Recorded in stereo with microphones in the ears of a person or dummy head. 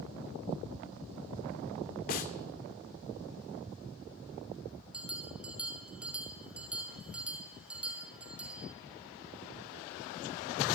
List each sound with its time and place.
2.1 s a snare drum: 50° left (ahead or behind), 1.9 m
4.9 s a bell: 5° right (ahead or behind), 1.6 m